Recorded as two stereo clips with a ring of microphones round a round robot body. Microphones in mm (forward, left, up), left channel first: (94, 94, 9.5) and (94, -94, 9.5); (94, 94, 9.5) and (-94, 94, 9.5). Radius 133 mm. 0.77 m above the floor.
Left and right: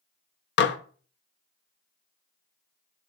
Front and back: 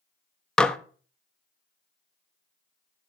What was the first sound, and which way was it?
Dishes clattering, 85° left.